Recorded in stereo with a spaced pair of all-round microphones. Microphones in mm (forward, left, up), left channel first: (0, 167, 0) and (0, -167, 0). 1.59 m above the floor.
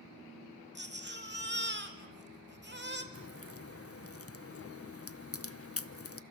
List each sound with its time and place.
0.8 s a baby crying: 30° right (ahead or behind), 2 m
3.1 s a crack: 40° left (ahead or behind), 0.8 m